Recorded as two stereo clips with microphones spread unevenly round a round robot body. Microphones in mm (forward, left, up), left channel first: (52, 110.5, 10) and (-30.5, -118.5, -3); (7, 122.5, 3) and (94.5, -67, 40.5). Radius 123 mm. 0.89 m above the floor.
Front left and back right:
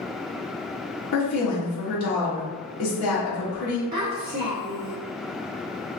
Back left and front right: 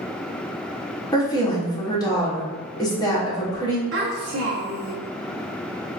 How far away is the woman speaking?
About 1.2 m.